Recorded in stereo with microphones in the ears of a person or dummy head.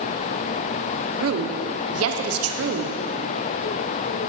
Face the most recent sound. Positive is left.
turn(degrees=-70)  # may be behind; listen again after turning